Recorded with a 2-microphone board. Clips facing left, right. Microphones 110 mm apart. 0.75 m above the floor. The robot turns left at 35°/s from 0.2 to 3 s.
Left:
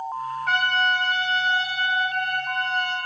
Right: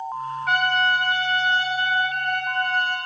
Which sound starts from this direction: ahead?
A trumpet, at 0.5 s.